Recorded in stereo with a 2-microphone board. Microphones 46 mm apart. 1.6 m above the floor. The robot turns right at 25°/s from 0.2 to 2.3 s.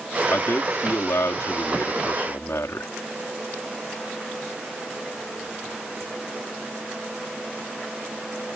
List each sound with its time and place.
0.3 s a man speaking: 60° left; by 2.9 s 110° left